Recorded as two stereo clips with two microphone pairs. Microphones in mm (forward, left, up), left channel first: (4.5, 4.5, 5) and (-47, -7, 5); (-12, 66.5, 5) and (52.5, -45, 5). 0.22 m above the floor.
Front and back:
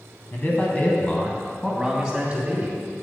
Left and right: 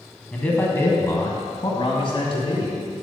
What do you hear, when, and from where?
0.3 s a man speaking: 45° left, 1.7 m; by 2.8 s 140° left, 1.8 m